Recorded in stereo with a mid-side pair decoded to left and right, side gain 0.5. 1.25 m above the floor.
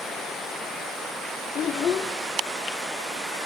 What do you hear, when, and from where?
1.6 s a child speaking: 50° left, 0.9 m